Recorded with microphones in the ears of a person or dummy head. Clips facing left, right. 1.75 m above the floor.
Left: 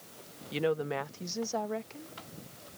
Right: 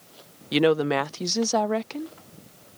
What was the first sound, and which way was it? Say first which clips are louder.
A woman speaking: right 10 dB; 75° right (ahead or behind).